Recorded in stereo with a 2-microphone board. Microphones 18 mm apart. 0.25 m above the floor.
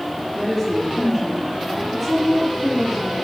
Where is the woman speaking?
10° left (ahead or behind), 6.5 m.